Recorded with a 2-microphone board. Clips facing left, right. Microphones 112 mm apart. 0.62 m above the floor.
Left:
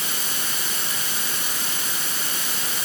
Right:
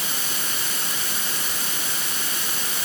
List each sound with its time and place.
Only background noise.